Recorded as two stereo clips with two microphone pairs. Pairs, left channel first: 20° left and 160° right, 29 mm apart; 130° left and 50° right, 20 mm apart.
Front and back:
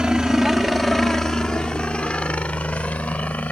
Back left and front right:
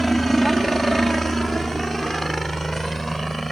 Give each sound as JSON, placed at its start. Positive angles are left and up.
{"t": 0.0, "sound": "a helicopter", "azimuth_deg": -150}